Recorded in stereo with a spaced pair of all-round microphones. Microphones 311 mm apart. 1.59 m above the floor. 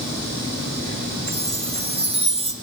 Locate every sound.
1.3 s a chime: 20° right (ahead or behind), 0.7 m